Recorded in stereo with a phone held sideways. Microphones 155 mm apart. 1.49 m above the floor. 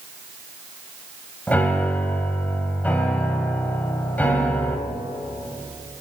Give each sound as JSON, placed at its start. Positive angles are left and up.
{"t": 1.5, "sound": "a piano", "side_deg": 10, "distance_m": 2.0}